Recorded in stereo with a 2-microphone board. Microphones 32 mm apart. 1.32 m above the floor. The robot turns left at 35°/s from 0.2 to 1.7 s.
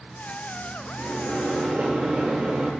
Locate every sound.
1.0 s a microwave: 80° right, 2 m; by 2.7 s 55° right (ahead or behind), 2 m